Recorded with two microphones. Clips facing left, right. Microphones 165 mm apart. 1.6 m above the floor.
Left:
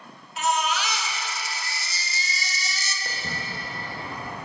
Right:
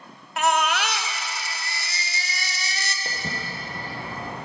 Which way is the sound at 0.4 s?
65° right (ahead or behind).